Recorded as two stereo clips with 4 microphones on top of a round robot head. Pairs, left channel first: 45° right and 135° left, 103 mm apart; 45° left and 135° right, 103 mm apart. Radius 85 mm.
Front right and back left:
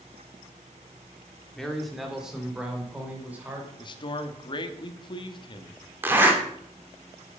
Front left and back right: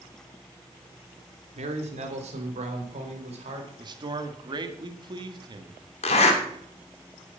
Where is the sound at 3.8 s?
90° right, 1.5 m.